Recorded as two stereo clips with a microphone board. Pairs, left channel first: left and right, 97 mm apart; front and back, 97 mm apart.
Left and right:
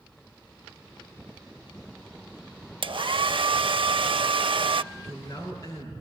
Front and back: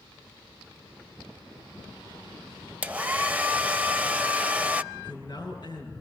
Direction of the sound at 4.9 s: 40° left.